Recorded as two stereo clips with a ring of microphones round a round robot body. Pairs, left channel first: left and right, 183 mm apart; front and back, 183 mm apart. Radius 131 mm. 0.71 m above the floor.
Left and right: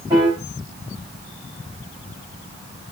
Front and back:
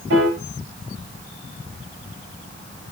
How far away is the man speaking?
I don't hear a man speaking.